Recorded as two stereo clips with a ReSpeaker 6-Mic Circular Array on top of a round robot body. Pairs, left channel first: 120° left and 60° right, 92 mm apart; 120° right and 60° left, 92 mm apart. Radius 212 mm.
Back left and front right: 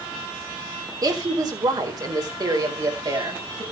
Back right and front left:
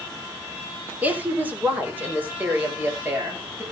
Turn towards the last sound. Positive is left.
turn(degrees=-10)